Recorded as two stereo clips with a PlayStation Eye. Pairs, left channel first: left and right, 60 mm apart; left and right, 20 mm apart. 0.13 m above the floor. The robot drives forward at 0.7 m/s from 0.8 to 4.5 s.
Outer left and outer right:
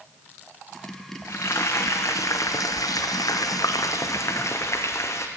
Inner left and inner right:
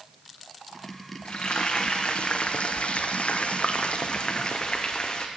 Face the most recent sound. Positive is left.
turn(degrees=50)  # may be behind; listen again after turning